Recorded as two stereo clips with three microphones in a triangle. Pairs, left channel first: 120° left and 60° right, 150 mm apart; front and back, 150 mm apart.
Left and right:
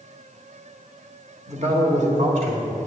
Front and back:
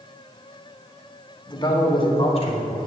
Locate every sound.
1.5 s a man speaking: 50° right, 1.5 m; by 2.8 s 40° right, 2 m